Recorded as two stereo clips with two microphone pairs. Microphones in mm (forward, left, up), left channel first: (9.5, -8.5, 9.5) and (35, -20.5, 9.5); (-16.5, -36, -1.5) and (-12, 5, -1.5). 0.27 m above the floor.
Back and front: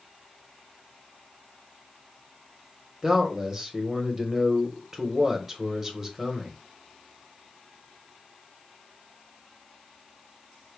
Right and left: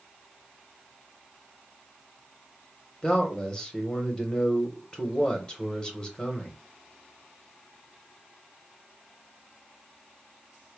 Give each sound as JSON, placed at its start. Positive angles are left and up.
{"t": 3.0, "sound": "a man speaking", "azimuth_deg": -70, "distance_m": 1.0}